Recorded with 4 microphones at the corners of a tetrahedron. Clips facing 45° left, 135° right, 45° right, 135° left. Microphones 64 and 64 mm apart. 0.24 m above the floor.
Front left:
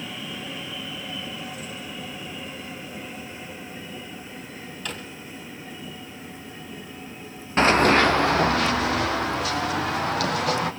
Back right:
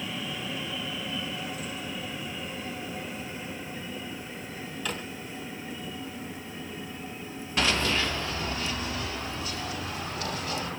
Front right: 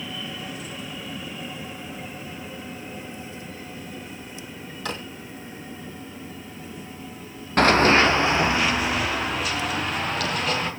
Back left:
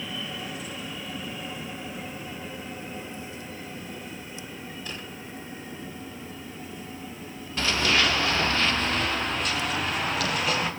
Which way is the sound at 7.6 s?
10° right.